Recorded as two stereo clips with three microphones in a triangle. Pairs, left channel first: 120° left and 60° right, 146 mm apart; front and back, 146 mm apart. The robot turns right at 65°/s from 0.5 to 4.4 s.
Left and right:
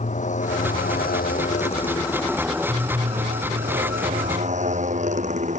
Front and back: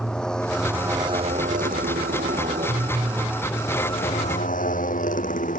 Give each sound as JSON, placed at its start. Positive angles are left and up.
{"t": 0.0, "sound": "a motorcycle", "azimuth_deg": 85}